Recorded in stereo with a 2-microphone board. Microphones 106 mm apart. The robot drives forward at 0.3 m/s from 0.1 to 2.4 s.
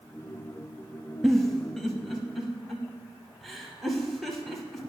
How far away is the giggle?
About 0.6 m.